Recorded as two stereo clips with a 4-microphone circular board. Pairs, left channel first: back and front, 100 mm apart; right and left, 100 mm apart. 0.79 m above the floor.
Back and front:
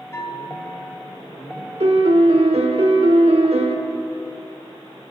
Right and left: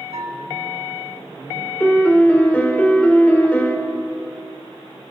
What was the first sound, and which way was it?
A bell, 115° left.